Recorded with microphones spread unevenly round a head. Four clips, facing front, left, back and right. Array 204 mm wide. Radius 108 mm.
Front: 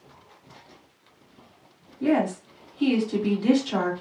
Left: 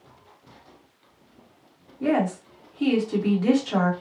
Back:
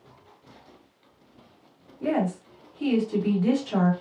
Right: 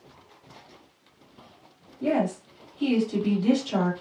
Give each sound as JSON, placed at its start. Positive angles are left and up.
{"t": 2.0, "sound": "a woman speaking", "azimuth_deg": 70, "distance_m": 1.6}